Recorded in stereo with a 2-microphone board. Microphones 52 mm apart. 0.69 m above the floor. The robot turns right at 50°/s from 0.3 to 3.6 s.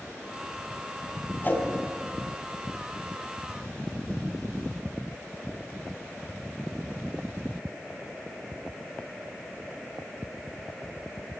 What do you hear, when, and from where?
1.4 s a whoosh: 40° left (ahead or behind), 3.5 m; by 1.7 s 30° left (ahead or behind), 3.5 m